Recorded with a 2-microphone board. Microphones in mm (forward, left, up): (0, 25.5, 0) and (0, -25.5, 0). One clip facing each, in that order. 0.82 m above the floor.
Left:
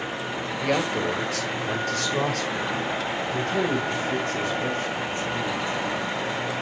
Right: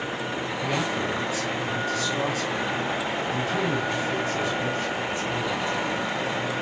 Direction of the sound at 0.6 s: 75° left (ahead or behind).